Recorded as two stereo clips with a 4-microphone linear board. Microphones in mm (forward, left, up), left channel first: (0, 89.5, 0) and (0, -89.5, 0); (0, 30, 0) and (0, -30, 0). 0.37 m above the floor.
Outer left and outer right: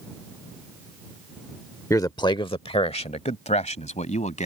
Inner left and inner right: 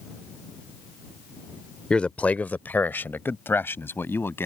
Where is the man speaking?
15° left (ahead or behind); by 4.5 s 40° left (ahead or behind).